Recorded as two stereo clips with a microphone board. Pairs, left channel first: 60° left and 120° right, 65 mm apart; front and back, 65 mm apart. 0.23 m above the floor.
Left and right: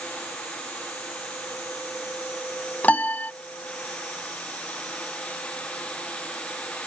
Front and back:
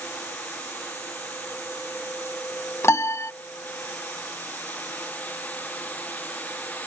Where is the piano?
5° left.